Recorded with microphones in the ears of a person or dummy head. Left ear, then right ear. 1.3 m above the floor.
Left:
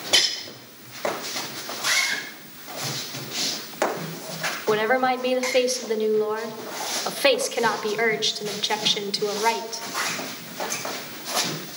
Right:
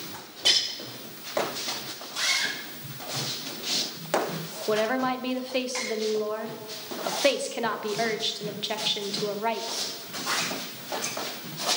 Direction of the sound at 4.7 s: 10° left (ahead or behind).